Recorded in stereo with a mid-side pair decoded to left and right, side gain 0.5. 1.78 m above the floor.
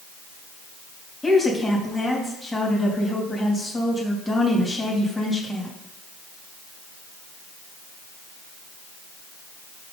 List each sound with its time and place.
1.2 s a woman speaking: 15° left, 3 m